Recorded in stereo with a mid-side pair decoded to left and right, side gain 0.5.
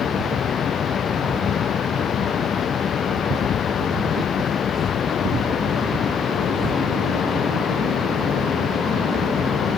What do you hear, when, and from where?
0.0 s a fan: 50° left